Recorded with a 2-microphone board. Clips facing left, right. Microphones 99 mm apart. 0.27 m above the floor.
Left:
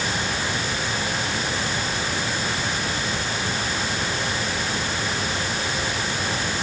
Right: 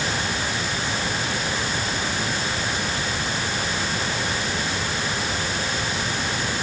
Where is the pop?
No pop in this recording.